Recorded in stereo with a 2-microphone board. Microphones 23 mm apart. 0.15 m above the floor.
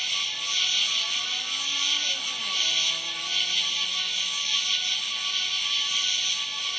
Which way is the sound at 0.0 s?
5° left (ahead or behind).